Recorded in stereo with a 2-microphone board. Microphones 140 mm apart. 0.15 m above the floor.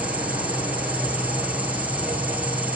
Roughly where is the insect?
Centre.